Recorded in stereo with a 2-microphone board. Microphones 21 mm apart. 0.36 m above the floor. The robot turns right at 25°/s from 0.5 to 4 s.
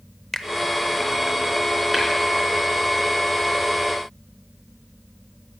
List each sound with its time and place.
0.3 s a finger snap: 25° left (ahead or behind), 0.7 m
1.9 s tapping: 25° right (ahead or behind), 4 m; by 2.0 s 30° right (ahead or behind), 4 m